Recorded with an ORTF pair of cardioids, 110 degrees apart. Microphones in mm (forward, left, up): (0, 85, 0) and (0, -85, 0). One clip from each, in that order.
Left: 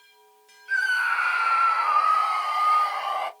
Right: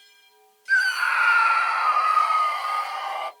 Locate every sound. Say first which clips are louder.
0.7 s a scream: right 2 dB; 45° right, 1.6 m; by 3.3 s 5° left, 1.7 m